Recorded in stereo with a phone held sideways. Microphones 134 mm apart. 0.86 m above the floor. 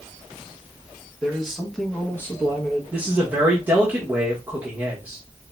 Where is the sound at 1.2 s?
5° right (ahead or behind), 1.3 m; by 2.8 s 30° left (ahead or behind), 1.2 m.